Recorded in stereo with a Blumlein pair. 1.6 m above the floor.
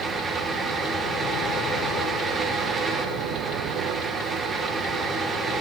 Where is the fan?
15° right, 1.7 m.